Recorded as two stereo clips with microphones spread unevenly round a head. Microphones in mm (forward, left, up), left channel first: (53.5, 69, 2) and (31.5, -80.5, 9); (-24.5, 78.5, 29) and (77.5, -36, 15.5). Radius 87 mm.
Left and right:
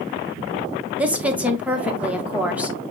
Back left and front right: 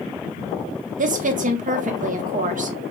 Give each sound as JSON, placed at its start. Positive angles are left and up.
{"t": 1.0, "sound": "a woman speaking", "azimuth_deg": -15, "distance_m": 1.2}